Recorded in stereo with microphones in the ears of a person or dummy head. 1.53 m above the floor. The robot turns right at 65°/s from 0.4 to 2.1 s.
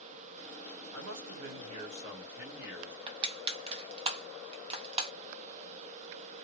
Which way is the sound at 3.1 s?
30° right (ahead or behind).